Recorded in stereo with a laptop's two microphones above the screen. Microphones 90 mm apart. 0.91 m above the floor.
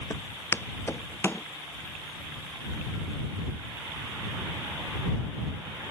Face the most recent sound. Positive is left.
turn(degrees=25)  # may be behind; listen again after turning